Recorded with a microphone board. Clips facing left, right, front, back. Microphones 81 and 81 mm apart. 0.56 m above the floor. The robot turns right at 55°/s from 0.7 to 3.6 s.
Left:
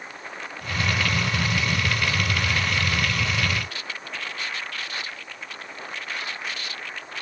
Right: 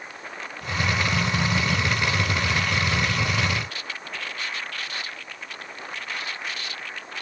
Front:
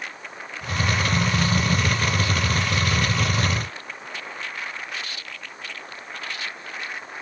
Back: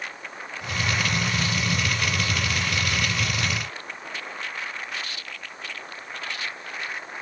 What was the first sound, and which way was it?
Only background noise.